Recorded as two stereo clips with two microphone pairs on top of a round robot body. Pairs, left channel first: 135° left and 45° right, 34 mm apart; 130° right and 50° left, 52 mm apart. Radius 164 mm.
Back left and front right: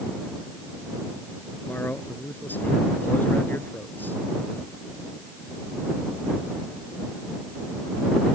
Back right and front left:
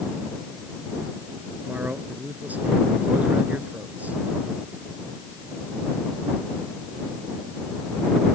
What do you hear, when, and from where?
1.7 s a man speaking: 110° left